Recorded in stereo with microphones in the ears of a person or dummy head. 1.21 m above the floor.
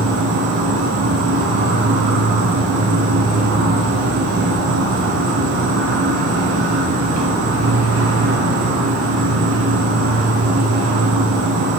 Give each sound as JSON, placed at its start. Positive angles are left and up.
{"t": 0.0, "sound": "an insect", "side_deg": -55, "distance_m": 0.7}